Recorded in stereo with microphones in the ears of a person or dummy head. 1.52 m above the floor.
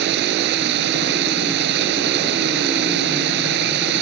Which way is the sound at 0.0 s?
60° right (ahead or behind).